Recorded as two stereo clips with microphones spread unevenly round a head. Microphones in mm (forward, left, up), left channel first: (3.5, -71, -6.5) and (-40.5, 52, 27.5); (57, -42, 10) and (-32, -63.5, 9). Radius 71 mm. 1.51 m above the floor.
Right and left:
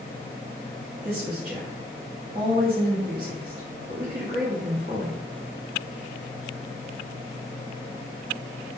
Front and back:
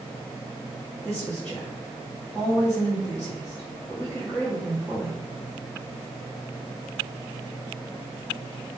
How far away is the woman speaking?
About 0.9 m.